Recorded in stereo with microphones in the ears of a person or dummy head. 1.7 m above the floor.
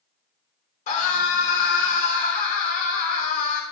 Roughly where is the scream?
Left.